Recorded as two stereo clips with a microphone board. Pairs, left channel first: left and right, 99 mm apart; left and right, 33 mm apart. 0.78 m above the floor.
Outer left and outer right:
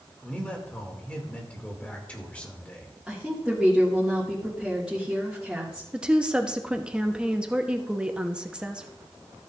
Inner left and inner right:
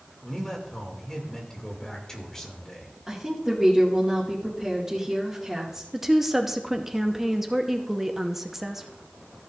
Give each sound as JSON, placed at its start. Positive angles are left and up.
{"t": 0.2, "sound": "a man speaking", "side_deg": 15, "distance_m": 2.5}
{"t": 3.1, "sound": "a woman speaking", "side_deg": -10, "distance_m": 1.9}
{"t": 5.9, "sound": "a woman speaking", "side_deg": -10, "distance_m": 0.9}